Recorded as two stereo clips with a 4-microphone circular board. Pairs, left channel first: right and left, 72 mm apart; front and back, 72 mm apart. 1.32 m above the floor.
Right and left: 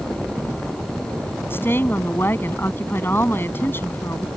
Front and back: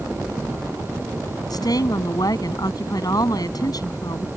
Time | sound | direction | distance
1.5 | a woman speaking | 30° right | ?